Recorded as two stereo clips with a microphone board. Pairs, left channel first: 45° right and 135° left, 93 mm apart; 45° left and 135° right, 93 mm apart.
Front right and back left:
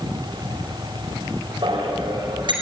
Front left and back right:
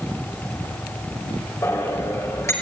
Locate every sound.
1.6 s a bicycle bell: 105° left, 5 m